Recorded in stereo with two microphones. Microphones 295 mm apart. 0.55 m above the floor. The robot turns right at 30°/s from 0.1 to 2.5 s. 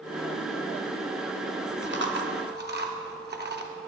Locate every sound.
1.8 s chewing: 40° right (ahead or behind), 0.7 m; by 3.7 s 35° right (ahead or behind), 0.7 m